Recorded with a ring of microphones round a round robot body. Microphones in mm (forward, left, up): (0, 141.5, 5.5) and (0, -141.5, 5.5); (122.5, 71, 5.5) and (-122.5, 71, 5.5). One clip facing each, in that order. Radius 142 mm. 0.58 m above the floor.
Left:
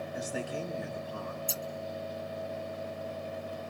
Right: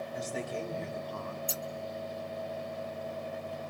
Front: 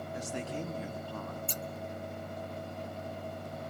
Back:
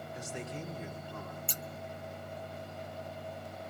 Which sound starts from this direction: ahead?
A man speaking, at 0.1 s.